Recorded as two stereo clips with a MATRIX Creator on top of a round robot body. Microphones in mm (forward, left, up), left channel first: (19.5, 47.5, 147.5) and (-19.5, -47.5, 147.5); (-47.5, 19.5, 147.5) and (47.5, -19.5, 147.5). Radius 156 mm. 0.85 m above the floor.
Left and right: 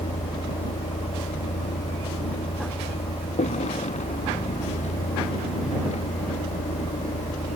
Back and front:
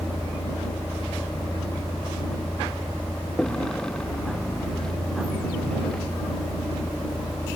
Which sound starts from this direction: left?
A vehicle, at 0.0 s.